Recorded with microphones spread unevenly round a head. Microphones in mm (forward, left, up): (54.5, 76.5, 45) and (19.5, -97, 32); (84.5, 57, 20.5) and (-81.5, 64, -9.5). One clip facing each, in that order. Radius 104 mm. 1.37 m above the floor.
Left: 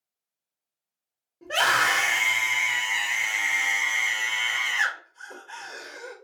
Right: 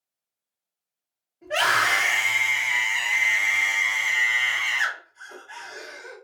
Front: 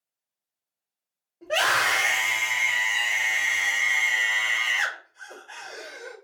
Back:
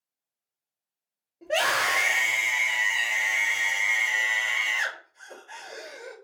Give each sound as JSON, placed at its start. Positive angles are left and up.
{"t": 1.4, "sound": "a scream", "azimuth_deg": 95, "distance_m": 2.0}